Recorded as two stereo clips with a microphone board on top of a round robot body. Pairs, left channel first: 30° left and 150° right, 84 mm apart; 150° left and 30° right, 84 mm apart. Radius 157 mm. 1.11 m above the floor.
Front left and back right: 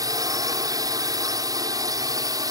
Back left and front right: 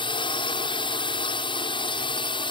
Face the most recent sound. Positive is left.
turn(degrees=165)